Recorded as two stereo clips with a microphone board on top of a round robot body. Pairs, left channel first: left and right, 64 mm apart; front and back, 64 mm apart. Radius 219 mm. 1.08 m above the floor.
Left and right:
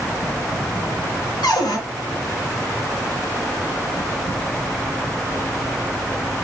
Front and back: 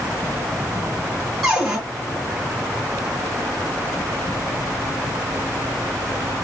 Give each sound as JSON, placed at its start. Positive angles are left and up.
{"t": 1.4, "sound": "a cupboard door", "azimuth_deg": 100, "distance_m": 1.4}